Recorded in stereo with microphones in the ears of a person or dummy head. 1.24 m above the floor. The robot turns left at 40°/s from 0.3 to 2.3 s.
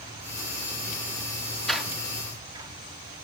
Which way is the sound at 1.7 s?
Centre (ahead or behind).